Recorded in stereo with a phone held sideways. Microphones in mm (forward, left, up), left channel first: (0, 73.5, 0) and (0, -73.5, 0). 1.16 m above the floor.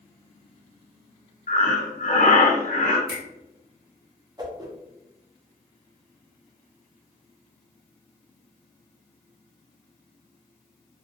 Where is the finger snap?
80° right, 1.1 m.